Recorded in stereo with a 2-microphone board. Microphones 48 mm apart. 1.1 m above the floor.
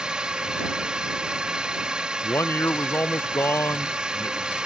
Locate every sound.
0.0 s a drone: 20° right (ahead or behind)
2.2 s a man speaking: 60° left (ahead or behind)